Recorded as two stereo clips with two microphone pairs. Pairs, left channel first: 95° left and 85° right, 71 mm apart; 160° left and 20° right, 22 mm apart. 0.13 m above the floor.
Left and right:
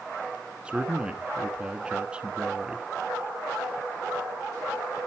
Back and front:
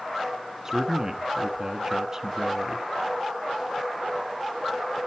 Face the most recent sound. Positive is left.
turn(degrees=-30)